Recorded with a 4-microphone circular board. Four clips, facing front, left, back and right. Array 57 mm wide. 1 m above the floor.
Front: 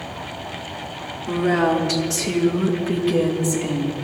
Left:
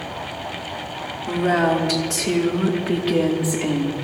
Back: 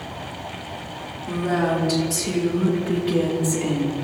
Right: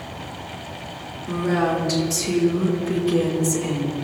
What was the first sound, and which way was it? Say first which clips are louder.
A woman speaking: left 3 dB, front 3 dB; 55° left.